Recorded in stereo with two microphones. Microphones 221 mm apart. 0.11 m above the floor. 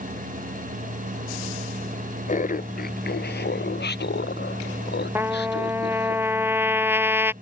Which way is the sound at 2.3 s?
35° left (ahead or behind).